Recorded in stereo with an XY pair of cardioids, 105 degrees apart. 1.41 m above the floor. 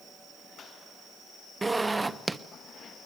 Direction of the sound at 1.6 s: 15° right.